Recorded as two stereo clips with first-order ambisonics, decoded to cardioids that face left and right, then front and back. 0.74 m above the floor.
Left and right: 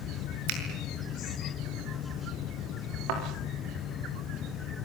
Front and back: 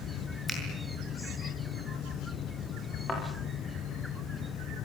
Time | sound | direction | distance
0.5 | a finger snap | 85° right | 7 m
3.1 | a thud | 75° right | 8 m